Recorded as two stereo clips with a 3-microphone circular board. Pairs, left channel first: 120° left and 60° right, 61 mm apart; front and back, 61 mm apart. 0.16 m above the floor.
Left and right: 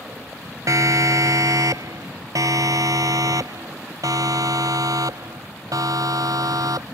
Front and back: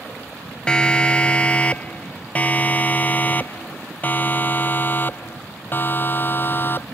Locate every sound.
0.7 s a siren: 75° right; by 6.8 s 55° right